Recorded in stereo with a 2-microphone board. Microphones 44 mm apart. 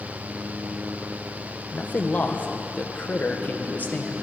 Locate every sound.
1.7 s a man speaking: 40° left (ahead or behind), 1.1 m